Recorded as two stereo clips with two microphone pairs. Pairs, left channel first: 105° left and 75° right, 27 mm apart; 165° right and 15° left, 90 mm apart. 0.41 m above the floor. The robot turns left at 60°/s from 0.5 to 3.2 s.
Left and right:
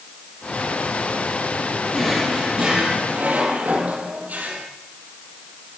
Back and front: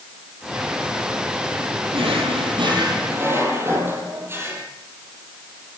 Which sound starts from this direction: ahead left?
A drawer, at 1.9 s.